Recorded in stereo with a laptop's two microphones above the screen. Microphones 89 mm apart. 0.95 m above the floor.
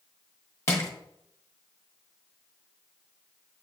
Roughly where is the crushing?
Left.